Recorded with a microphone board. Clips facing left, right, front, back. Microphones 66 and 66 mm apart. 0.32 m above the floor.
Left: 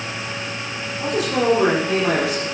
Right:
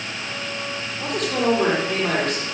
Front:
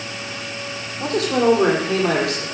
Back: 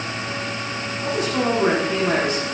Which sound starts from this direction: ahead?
A man speaking, at 1.0 s.